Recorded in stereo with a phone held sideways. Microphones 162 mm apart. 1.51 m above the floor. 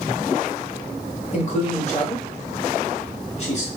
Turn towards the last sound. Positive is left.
turn(degrees=45)  # may be behind; listen again after turning